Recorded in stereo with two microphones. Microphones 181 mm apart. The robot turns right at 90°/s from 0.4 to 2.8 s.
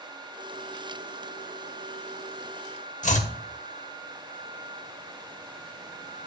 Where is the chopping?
45° left (ahead or behind), 0.8 m.